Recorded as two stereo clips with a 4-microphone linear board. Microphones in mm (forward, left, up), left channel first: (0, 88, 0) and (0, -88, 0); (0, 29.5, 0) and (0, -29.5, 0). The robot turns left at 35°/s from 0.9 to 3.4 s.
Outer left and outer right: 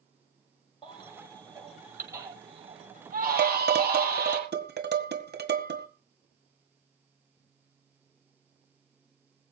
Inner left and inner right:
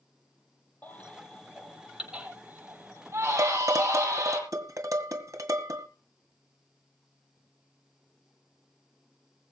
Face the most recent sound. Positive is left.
turn(degrees=-70)  # may be behind; listen again after turning